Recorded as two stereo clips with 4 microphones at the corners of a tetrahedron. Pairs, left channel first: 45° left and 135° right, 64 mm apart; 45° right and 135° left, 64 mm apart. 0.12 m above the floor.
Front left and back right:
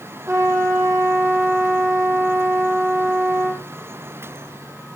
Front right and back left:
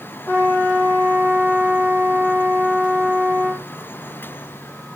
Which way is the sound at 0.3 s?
95° right.